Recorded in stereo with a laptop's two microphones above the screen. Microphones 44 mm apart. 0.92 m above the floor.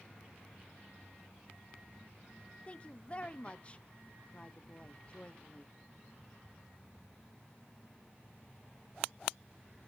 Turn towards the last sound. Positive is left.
turn(degrees=30)  # may be behind; listen again after turning